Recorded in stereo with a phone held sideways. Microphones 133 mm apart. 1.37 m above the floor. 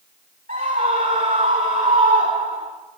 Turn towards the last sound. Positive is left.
turn(degrees=-75)  # may be behind; listen again after turning